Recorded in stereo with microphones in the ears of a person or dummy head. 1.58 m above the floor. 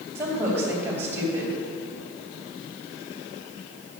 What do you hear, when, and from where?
0.1 s a woman speaking: 10° right (ahead or behind), 2.5 m